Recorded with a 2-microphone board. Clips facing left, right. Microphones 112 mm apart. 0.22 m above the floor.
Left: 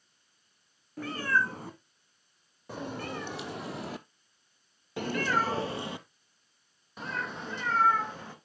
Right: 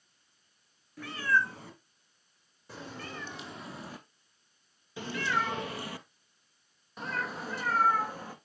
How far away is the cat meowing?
About 2 m.